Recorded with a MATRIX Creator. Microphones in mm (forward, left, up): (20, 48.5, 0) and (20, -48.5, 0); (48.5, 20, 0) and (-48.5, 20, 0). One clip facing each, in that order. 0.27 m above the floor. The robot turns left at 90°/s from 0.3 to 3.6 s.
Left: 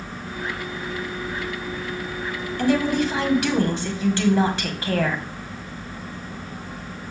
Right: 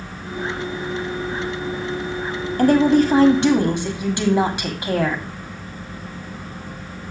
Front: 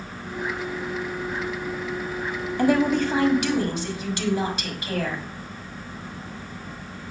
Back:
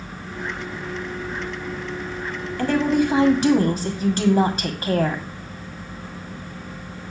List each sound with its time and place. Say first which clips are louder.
2.6 s a woman speaking: right 6 dB, back 1 dB; 65° right, 1.5 m; by 5.2 s 155° right, 1.5 m